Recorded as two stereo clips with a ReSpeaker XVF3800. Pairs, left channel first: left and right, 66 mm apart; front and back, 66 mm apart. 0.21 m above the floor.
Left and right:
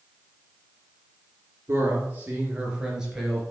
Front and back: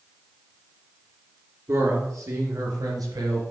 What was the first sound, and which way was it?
A man speaking, 135° right.